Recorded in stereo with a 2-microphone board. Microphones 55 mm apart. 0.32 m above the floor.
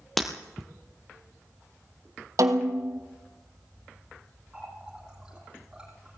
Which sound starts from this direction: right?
A snare drum, at 2.4 s.